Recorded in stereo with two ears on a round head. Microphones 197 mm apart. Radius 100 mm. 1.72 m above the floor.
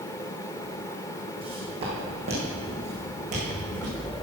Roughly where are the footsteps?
Right.